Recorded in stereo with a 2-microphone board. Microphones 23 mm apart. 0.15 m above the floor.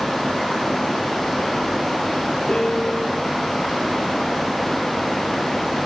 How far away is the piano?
About 4.5 m.